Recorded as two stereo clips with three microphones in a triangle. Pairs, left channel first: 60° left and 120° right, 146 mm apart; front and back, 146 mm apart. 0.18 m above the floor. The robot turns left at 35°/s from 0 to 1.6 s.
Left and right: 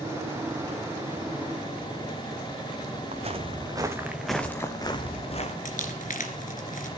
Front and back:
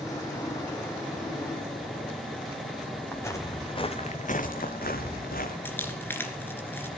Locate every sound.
3.1 s footsteps: 75° right, 1.9 m; by 5.5 s 15° left, 2 m
5.7 s crumpling: 75° left, 2.0 m